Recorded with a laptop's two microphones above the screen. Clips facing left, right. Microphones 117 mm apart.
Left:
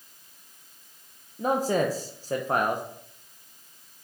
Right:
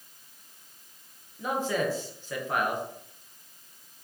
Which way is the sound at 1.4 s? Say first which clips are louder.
Left 4 dB; 40° left (ahead or behind).